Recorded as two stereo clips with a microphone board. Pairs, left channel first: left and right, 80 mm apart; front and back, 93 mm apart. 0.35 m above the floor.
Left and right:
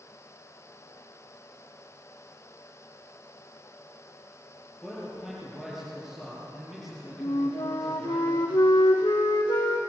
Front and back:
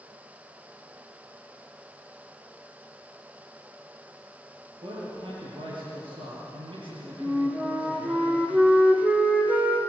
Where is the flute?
110° left, 3 m.